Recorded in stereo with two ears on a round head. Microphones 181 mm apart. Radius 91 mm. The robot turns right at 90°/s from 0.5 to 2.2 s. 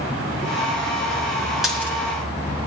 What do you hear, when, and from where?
1.6 s a dropped coin: centre (ahead or behind), 1.8 m; by 1.9 s 15° left (ahead or behind), 1.8 m